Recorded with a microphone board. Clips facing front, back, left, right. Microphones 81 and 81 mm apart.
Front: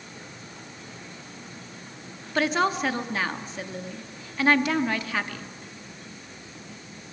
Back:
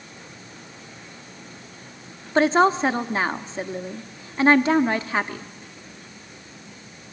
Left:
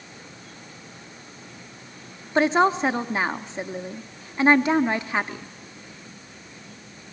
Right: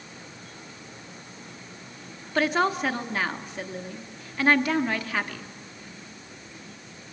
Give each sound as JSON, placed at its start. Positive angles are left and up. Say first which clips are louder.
{"t": 2.4, "sound": "a woman speaking", "louder": "back 6 dB, left 5 dB", "azimuth_deg": 140, "distance_m": 0.8}